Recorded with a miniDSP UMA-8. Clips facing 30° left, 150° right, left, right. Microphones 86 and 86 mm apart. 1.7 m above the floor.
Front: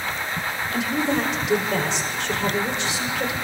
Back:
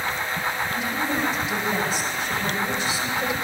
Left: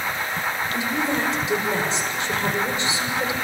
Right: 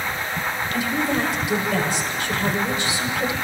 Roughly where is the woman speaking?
Ahead left.